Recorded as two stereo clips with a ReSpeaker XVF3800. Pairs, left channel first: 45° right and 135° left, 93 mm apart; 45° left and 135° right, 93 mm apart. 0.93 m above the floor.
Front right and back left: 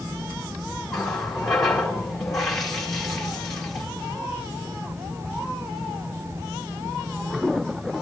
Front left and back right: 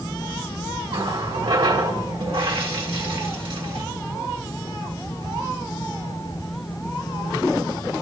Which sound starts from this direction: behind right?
A running tap, at 0.9 s.